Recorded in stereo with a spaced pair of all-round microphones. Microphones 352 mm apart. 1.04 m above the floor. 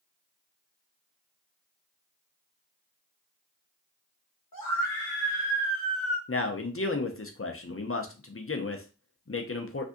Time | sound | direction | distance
4.5 | a scream | 65° left (ahead or behind) | 0.9 m
6.3 | a man speaking | 40° left (ahead or behind) | 0.5 m